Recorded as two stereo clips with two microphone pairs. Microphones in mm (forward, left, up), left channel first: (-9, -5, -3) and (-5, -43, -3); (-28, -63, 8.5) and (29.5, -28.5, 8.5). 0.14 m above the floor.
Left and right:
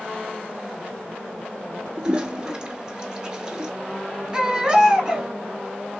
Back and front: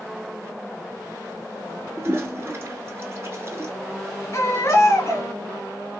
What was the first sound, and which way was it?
A toilet flushing, 20° right.